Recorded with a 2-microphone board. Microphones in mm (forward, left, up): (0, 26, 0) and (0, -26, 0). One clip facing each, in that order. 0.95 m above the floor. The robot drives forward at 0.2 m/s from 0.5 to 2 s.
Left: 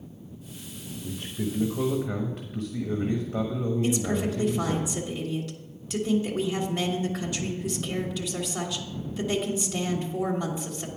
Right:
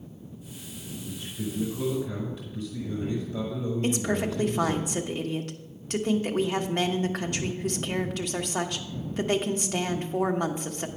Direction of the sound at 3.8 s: 50° right (ahead or behind).